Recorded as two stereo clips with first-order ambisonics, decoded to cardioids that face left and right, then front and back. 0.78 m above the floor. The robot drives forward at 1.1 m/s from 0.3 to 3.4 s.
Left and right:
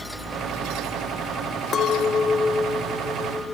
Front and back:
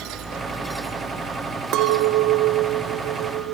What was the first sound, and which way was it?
A clink, 150° left.